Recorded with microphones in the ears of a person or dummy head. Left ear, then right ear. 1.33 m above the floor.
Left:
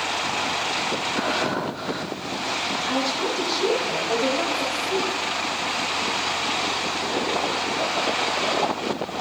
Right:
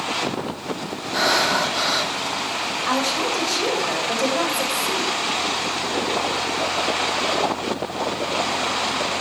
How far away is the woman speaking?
About 5.5 m.